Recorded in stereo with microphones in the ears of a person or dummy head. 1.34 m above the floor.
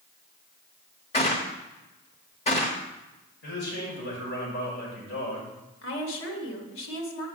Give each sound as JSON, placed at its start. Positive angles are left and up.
{"t": 1.1, "sound": "a gunshot", "side_deg": 30, "distance_m": 1.1}
{"t": 3.4, "sound": "a man speaking", "side_deg": 65, "distance_m": 5.0}
{"t": 5.8, "sound": "a woman speaking", "side_deg": 75, "distance_m": 2.0}